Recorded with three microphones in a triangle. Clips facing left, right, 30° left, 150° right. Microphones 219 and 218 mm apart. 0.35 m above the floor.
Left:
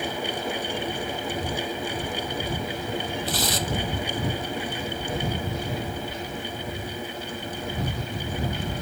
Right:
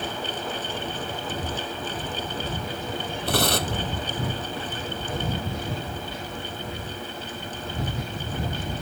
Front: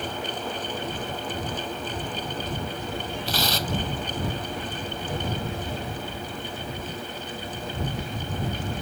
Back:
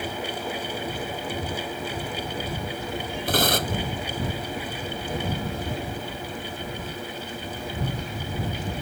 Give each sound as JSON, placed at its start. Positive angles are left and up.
{"t": 3.3, "sound": "tearing paper", "azimuth_deg": -115}